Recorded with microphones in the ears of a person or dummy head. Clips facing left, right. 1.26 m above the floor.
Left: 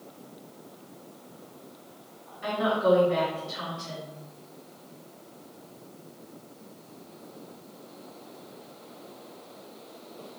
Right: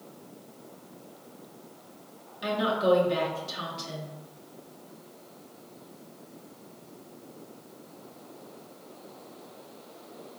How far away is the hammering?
I don't hear hammering.